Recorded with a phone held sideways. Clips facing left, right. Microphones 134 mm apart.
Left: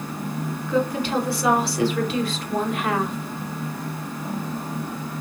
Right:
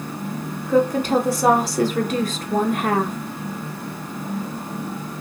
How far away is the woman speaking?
About 0.9 m.